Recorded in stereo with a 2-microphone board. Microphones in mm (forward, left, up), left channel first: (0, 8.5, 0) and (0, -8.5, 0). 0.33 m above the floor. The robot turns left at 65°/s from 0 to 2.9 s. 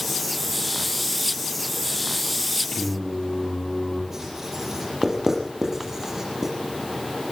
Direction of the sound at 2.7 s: 55° left (ahead or behind).